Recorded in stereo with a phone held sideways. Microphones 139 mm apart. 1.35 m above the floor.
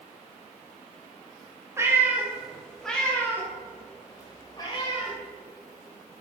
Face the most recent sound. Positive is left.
turn(degrees=35)  # may be behind; listen again after turning